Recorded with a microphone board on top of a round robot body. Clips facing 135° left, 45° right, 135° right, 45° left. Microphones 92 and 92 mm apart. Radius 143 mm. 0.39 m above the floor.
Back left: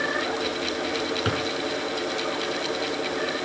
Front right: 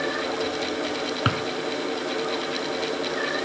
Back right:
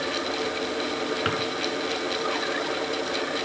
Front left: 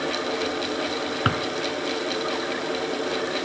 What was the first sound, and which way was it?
A drawer, 10° right.